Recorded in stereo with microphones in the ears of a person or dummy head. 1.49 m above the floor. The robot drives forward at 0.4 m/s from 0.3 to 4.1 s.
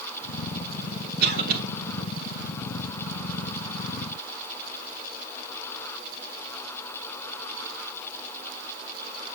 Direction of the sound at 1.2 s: 55° right (ahead or behind).